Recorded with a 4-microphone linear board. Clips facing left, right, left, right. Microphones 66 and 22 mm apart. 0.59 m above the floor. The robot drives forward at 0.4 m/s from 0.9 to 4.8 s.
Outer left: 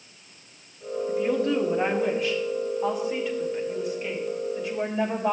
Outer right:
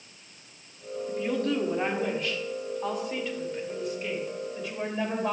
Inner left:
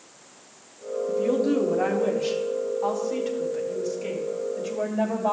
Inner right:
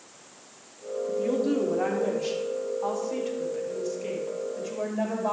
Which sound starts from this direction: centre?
A woman speaking, at 1.1 s.